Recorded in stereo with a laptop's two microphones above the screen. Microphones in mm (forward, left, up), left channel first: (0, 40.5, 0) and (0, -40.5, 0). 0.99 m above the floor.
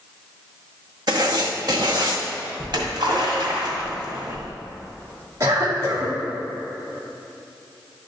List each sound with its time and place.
1.1 s writing: 60° right (ahead or behind), 0.9 m
2.6 s a splash: 70° right (ahead or behind), 1.9 m
5.4 s a cough: 40° right (ahead or behind), 1.8 m